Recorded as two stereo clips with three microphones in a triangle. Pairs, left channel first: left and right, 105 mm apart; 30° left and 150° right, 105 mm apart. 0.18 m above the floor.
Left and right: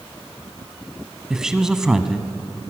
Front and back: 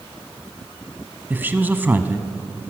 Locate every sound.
1.3 s a man speaking: 165° right, 1.2 m